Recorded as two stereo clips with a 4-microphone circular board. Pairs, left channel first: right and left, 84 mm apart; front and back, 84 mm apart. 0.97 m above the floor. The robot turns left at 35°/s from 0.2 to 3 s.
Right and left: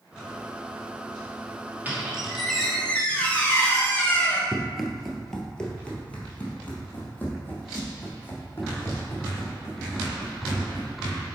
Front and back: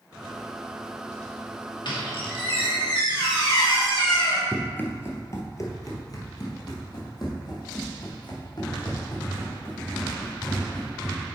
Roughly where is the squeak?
Ahead.